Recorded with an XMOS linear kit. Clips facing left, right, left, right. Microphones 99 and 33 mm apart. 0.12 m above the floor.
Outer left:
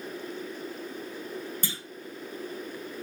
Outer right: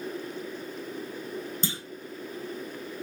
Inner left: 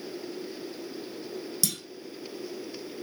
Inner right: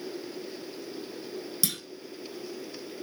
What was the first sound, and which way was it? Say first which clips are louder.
A clunk: outer right 4 dB, even; 25° right (ahead or behind).